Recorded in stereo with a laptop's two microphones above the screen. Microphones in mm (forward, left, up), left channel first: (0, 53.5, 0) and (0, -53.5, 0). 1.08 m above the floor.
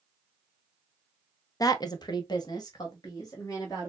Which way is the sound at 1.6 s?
35° left (ahead or behind).